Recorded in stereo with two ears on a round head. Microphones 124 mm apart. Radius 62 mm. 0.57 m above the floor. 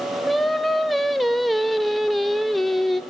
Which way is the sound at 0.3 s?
Centre (ahead or behind).